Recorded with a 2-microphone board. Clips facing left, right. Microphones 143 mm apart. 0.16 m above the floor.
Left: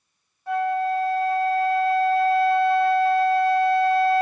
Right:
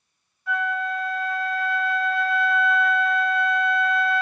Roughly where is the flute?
Left.